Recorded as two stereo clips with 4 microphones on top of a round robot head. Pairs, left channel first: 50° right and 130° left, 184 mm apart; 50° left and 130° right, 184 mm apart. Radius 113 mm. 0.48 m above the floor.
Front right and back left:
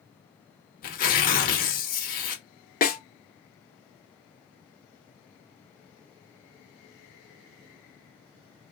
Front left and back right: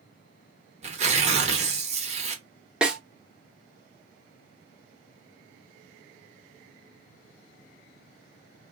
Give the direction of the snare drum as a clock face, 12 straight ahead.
2 o'clock.